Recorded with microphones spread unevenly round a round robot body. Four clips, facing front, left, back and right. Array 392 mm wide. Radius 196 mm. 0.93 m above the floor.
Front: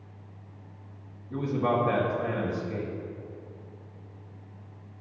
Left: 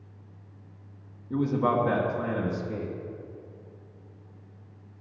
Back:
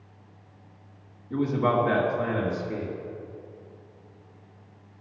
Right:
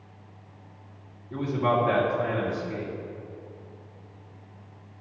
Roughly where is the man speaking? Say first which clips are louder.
Even, back 3 dB; left.